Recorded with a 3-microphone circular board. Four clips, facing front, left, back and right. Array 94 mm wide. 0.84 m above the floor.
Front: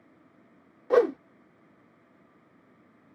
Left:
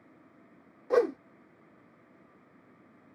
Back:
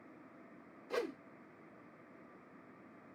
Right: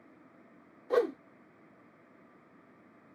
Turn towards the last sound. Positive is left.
turn(degrees=15)